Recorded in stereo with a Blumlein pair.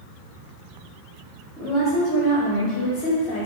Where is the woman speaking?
35° left, 0.6 m.